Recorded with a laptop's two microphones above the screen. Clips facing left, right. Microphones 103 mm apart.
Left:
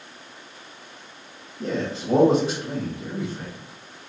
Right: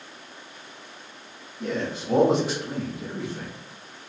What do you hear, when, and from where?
1.6 s a man speaking: 30° left (ahead or behind), 0.6 m; by 3.5 s 15° left (ahead or behind), 1.2 m